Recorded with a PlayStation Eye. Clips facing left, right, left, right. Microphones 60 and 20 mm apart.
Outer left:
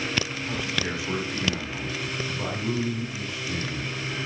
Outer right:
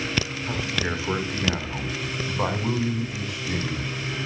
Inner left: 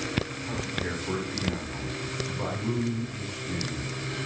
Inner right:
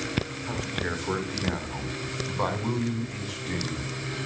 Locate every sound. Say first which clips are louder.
0.5 s a man speaking: outer right 2 dB, inner right 1 dB; 25° right (ahead or behind), 3.5 m; by 3.9 s 75° right (ahead or behind), 5 m